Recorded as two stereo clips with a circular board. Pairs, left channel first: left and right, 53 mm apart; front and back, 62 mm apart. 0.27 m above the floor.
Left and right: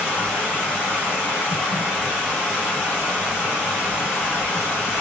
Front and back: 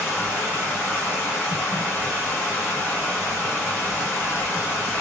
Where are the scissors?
I don't hear scissors.